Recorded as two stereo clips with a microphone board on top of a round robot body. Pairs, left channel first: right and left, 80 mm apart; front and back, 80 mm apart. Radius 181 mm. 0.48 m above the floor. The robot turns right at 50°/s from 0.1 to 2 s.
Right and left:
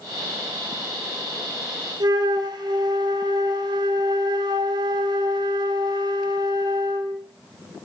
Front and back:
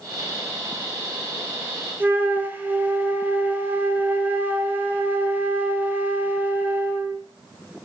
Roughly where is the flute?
Behind left.